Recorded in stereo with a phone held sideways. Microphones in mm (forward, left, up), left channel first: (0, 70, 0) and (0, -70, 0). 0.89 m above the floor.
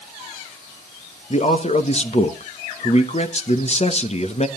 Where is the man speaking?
45° left (ahead or behind), 1.1 m.